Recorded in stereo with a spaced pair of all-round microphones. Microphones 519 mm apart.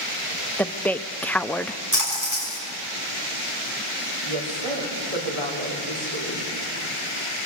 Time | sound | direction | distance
0.6 | a woman speaking | 5° left (ahead or behind) | 0.6 m
1.9 | a splash | 35° right (ahead or behind) | 7 m
4.2 | a woman speaking | 80° right | 5 m